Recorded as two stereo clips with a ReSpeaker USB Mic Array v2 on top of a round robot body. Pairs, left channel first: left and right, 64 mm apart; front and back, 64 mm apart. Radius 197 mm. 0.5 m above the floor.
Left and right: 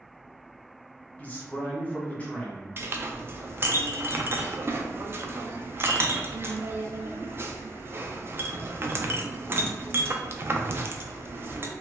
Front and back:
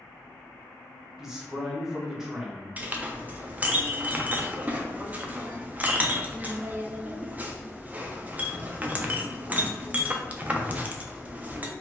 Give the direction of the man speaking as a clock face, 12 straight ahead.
8 o'clock.